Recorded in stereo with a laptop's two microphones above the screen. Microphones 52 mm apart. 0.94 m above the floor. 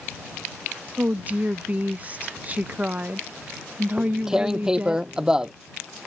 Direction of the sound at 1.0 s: 30° right (ahead or behind).